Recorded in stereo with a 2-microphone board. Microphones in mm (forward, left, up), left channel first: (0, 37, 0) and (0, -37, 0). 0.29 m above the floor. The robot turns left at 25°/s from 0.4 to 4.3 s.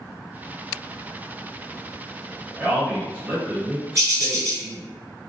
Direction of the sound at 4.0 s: 45° right (ahead or behind).